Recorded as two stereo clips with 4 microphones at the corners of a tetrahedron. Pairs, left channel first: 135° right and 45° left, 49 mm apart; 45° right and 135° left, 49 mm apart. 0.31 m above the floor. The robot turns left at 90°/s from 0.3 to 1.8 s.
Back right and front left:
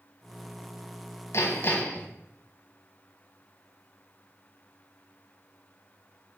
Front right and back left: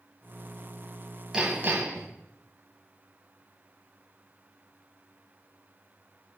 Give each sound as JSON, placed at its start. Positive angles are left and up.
{"t": 1.3, "sound": "hammering", "azimuth_deg": -150, "distance_m": 1.7}